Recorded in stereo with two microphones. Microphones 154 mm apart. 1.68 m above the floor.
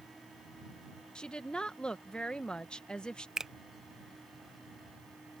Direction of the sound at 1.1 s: 5° left (ahead or behind).